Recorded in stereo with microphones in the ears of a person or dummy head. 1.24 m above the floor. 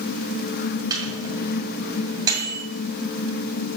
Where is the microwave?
15° right (ahead or behind), 2.5 m.